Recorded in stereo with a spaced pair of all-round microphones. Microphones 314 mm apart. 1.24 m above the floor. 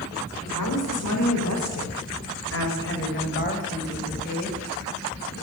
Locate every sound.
0.5 s a woman speaking: 80° left, 4.5 m; by 5.3 s 20° left (ahead or behind), 7.5 m